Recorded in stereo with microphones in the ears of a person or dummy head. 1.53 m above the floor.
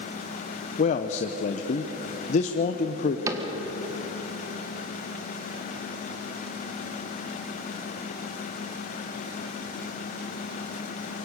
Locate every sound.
0.8 s a man speaking: 40° left (ahead or behind), 0.8 m
3.3 s a cupboard door: 20° right (ahead or behind), 1.5 m